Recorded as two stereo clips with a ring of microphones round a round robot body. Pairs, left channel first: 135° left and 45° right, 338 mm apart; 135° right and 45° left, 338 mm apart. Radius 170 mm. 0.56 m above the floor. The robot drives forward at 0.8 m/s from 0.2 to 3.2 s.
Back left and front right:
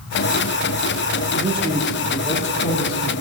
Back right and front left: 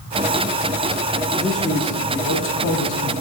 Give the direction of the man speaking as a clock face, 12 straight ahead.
1 o'clock.